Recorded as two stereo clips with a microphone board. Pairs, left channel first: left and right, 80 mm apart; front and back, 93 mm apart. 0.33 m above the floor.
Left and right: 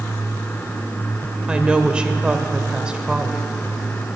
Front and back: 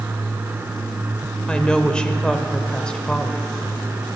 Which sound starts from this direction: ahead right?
A woman speaking, at 1.5 s.